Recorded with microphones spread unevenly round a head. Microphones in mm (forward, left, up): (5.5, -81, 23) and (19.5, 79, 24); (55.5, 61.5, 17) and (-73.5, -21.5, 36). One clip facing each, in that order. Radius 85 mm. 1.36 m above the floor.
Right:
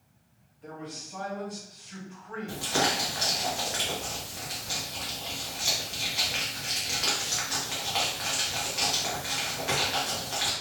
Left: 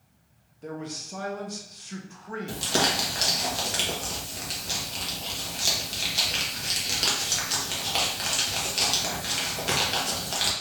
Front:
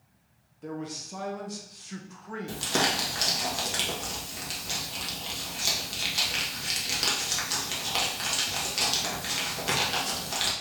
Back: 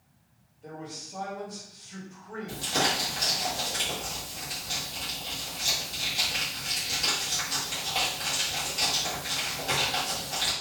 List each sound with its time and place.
0.6 s a man speaking: 45° left, 1.2 m
2.5 s crumpling: 35° left, 1.4 m